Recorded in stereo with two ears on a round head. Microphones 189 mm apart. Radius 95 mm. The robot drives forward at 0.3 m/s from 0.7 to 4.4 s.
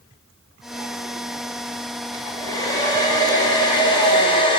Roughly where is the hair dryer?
Centre.